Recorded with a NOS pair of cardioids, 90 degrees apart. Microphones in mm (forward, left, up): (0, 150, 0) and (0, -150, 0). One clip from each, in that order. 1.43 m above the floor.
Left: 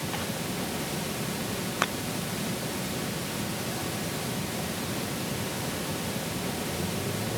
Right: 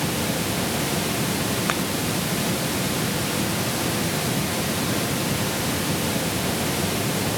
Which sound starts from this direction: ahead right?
Running water, at 0.0 s.